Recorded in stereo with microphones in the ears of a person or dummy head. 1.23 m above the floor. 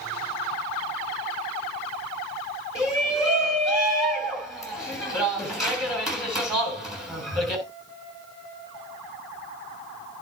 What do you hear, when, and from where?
2.8 s a shout: centre (ahead or behind), 7 m